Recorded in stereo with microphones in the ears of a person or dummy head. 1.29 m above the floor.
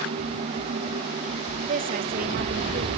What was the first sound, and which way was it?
A woman speaking, 40° right (ahead or behind).